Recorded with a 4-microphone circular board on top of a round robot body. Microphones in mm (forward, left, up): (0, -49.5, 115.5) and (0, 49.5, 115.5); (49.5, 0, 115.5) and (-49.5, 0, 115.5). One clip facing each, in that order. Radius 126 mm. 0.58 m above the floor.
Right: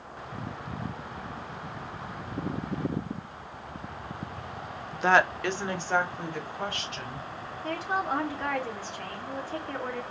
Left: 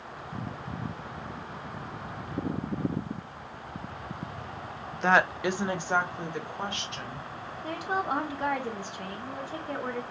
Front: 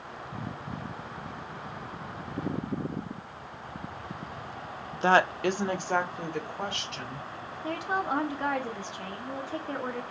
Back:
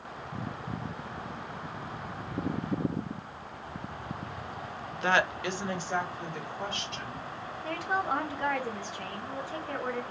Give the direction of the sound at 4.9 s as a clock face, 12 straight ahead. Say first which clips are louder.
Right 1 dB, front 4 dB; 1 o'clock.